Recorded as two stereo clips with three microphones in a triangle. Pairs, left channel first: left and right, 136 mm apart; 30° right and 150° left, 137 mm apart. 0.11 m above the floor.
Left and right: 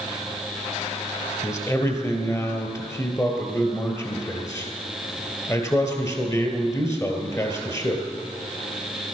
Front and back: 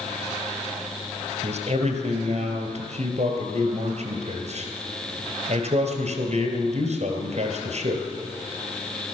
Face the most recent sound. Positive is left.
turn(degrees=155)